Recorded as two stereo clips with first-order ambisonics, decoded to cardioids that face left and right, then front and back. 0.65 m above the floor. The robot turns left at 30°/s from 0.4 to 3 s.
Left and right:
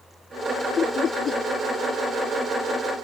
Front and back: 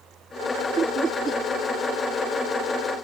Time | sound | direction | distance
0.8 | laughter | 135° left | ?